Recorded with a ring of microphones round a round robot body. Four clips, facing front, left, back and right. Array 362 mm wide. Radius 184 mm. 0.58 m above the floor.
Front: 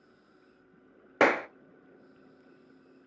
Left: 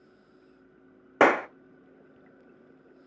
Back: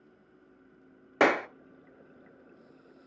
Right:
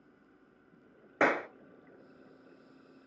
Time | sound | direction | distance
1.2 | a clap | 75° left | 0.6 m